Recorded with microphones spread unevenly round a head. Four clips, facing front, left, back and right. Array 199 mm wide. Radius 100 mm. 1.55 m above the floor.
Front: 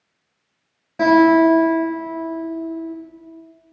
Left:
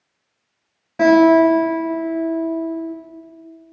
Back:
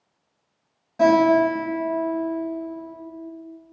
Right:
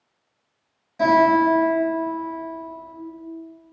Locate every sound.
1.0 s a guitar: 60° left, 2.0 m